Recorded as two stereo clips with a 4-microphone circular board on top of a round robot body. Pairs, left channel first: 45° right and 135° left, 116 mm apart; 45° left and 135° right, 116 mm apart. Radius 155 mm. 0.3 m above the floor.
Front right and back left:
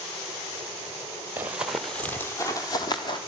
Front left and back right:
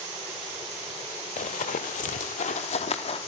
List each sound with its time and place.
1.4 s running footsteps: 65° left, 0.8 m; by 3.2 s 5° left, 1.4 m